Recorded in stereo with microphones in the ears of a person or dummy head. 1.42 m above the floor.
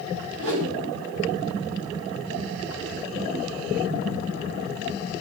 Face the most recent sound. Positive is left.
turn(degrees=-85)